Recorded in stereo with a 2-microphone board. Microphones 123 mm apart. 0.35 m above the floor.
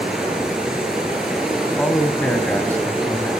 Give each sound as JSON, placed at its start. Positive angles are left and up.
{"t": 0.0, "sound": "running water", "side_deg": -5, "distance_m": 5.5}
{"t": 1.6, "sound": "a man speaking", "side_deg": 15, "distance_m": 2.0}